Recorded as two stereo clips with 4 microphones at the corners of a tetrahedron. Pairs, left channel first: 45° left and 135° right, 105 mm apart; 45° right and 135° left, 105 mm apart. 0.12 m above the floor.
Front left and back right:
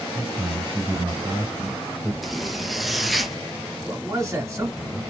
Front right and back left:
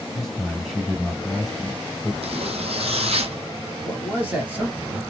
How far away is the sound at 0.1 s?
About 1.5 m.